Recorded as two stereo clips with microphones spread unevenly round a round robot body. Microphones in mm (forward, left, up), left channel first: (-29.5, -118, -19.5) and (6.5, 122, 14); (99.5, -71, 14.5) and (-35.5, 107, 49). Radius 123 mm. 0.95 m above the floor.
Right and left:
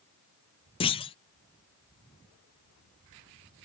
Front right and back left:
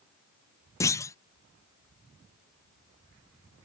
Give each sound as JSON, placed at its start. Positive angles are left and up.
{"t": 0.8, "sound": "a clunk", "azimuth_deg": -95}